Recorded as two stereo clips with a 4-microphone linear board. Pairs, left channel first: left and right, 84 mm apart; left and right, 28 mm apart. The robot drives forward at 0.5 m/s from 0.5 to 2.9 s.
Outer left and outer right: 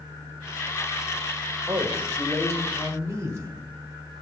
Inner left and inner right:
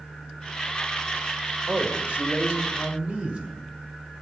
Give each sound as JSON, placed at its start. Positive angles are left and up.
{"t": 1.7, "sound": "a man speaking", "side_deg": -40, "distance_m": 1.6}